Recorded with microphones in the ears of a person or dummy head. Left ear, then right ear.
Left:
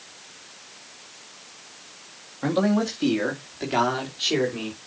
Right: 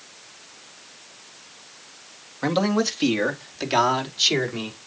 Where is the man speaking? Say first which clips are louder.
Right 1 dB; 75° right (ahead or behind), 1.7 m; by 4.8 s 85° right, 3.5 m.